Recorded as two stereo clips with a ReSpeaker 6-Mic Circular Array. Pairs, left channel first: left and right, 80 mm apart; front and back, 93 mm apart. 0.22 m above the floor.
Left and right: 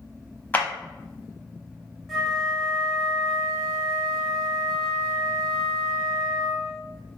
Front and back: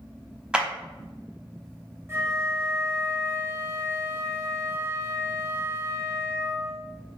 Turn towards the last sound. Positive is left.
turn(degrees=180)